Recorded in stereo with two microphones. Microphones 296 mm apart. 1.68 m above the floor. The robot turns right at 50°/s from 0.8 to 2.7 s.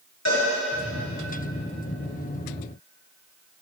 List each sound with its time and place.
0.2 s a cowbell: 65° left (ahead or behind), 6.5 m